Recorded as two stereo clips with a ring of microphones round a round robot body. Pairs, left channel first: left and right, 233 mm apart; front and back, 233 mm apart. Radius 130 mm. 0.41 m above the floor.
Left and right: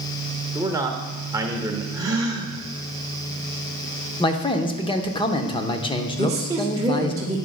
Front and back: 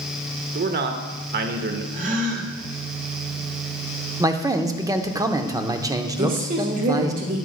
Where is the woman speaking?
155° right, 1.4 m.